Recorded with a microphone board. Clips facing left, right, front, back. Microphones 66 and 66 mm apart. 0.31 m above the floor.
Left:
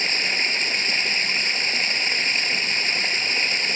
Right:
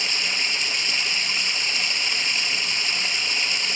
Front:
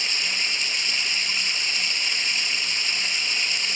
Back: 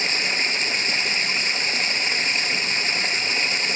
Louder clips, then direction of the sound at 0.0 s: Left 3 dB, back 4 dB; 135° left.